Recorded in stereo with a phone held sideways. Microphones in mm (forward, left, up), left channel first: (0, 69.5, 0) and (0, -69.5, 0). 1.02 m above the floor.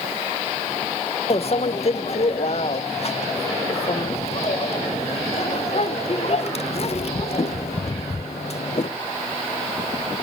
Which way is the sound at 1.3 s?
50° left (ahead or behind).